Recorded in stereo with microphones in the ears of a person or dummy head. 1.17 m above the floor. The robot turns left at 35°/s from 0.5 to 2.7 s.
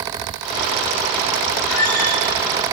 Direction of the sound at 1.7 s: 85° left.